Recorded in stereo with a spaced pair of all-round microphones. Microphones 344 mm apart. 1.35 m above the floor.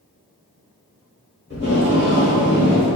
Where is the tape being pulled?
35° left (ahead or behind), 1.2 m.